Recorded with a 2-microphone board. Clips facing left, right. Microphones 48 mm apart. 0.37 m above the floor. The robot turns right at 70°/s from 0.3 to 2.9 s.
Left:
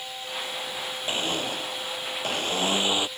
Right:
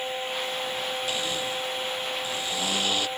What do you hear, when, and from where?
1.1 s a blender: 30° left; by 3.1 s 160° left